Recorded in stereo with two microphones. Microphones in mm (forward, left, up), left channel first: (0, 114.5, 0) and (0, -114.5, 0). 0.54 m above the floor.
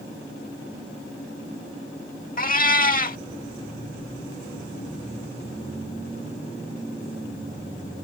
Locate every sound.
2.4 s a cat meowing: 40° left (ahead or behind)